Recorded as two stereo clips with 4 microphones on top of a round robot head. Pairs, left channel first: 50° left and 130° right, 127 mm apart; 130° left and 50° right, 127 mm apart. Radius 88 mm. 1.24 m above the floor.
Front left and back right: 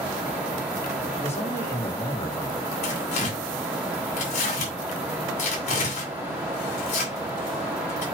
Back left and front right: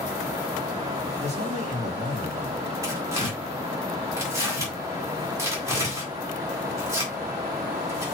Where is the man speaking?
20° right, 3 m.